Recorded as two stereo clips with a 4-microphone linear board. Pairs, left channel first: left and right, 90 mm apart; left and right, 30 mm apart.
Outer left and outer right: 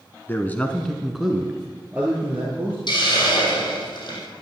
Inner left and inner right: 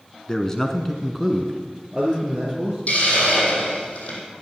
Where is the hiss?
55° left (ahead or behind), 4.5 m.